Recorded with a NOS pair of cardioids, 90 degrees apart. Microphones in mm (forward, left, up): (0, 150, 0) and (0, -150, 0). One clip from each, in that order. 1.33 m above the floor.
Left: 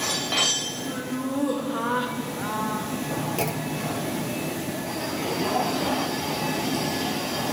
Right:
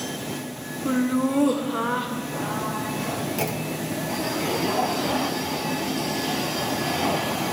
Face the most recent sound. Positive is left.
turn(degrees=0)